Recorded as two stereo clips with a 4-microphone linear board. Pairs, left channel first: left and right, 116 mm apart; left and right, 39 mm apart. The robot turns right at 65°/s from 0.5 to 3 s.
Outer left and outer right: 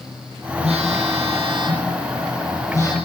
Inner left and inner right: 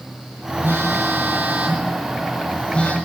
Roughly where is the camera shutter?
I don't hear a camera shutter.